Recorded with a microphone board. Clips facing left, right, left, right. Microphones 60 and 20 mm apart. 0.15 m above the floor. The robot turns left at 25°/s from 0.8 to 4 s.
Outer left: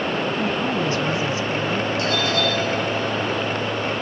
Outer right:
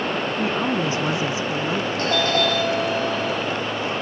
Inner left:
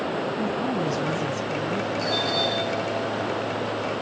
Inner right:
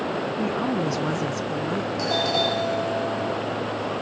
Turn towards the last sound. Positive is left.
turn(degrees=-95)